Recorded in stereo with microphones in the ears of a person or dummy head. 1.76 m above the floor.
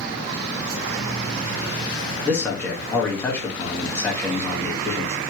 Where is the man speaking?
10° left (ahead or behind), 1.3 m.